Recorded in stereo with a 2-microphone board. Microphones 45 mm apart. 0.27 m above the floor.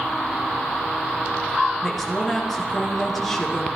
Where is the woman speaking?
5° left (ahead or behind), 3.5 m.